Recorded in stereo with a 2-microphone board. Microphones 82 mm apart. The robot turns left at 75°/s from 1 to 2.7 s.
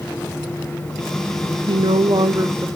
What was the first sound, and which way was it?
A woman speaking, 80° right.